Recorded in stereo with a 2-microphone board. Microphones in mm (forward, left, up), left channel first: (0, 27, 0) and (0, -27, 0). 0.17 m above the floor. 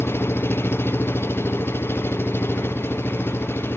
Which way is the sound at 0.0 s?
45° left (ahead or behind).